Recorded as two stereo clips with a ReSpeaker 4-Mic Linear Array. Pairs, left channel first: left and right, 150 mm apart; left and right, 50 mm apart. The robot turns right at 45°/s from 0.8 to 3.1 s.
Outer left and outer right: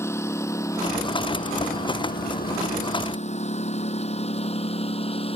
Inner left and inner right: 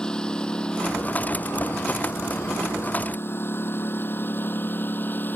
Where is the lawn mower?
15° left (ahead or behind); by 5.4 s 40° left (ahead or behind).